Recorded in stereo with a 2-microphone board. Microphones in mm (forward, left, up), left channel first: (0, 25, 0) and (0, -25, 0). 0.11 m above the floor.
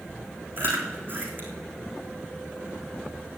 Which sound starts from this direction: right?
Chewing, at 0.6 s.